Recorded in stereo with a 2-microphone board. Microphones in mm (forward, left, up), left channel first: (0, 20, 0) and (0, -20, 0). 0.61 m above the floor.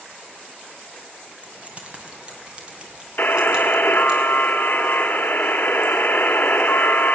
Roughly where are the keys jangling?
Right.